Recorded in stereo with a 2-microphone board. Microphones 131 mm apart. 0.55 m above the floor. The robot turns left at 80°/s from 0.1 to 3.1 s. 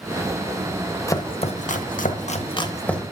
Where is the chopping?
25° left (ahead or behind), 0.7 m; by 3.0 s centre (ahead or behind), 0.7 m.